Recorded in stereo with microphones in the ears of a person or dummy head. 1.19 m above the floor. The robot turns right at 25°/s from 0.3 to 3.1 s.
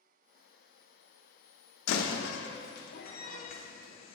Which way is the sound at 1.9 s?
80° left.